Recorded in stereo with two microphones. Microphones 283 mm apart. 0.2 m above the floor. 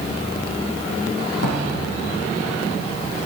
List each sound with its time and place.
1.4 s a drawer: 60° left (ahead or behind), 4.5 m